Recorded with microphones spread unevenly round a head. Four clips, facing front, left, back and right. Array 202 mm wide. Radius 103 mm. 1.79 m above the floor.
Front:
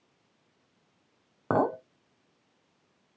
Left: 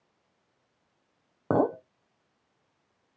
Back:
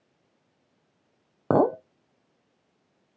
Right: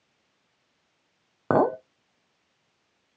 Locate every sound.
1.5 s a clink: 140° right, 0.7 m